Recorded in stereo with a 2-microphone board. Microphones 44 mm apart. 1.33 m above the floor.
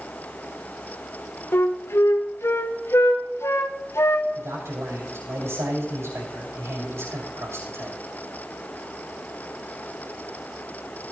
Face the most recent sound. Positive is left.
turn(degrees=-90)